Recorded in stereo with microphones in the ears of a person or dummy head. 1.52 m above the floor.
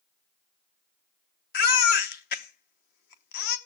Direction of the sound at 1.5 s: 50° left (ahead or behind).